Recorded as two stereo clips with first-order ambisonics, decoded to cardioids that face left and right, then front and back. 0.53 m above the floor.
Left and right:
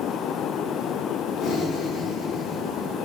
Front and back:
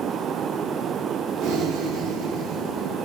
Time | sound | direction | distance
1.4 | breathing | 150° left | 0.7 m